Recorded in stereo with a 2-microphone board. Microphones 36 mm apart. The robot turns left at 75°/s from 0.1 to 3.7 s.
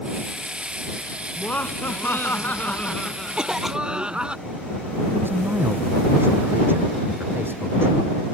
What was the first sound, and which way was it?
Laughter, 150° left.